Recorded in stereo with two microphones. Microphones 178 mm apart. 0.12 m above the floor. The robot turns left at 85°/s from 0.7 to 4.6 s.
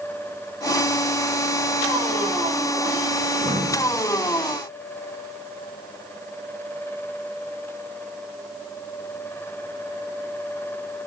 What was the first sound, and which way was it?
Breathing, 30° right.